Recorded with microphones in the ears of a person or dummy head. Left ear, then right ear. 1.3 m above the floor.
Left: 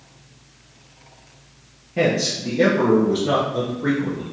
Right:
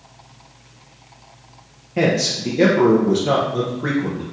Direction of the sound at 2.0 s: 10° right (ahead or behind).